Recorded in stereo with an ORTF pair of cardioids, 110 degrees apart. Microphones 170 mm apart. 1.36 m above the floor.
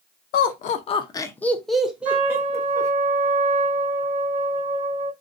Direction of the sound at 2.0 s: 60° right.